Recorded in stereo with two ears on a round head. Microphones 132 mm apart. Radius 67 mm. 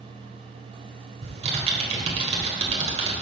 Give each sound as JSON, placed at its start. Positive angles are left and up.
{"t": 1.2, "sound": "typing on a keyboard", "side_deg": -50, "distance_m": 1.5}